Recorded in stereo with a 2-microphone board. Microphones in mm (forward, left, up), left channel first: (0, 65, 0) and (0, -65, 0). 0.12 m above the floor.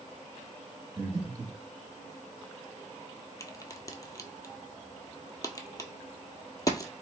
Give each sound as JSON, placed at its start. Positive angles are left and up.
{"t": 1.0, "sound": "breathing", "side_deg": -35, "distance_m": 0.9}
{"t": 3.4, "sound": "a crack", "side_deg": 30, "distance_m": 0.5}